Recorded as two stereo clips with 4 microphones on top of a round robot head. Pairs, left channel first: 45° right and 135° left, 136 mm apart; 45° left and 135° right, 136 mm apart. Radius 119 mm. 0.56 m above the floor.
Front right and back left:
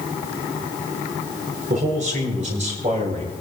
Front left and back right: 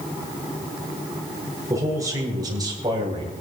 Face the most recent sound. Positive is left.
turn(degrees=170)